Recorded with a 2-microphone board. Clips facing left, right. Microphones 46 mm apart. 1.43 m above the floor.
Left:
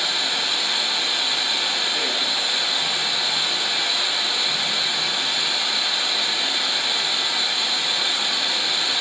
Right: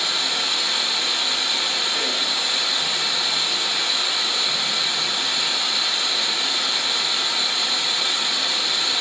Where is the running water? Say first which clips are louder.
Even; 20° left (ahead or behind), 2.5 m.